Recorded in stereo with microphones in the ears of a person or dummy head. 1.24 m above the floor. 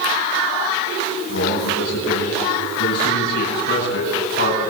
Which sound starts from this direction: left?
A man speaking, at 1.3 s.